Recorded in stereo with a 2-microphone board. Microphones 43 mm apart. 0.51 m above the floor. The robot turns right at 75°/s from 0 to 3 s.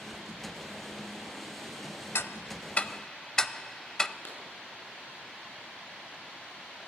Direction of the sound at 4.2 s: 60° left (ahead or behind).